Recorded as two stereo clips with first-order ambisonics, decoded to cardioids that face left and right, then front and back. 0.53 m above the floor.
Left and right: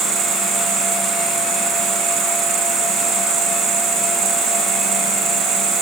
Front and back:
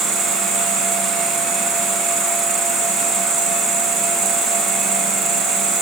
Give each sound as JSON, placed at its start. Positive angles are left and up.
{"t": 0.0, "sound": "an insect", "azimuth_deg": -135, "distance_m": 2.5}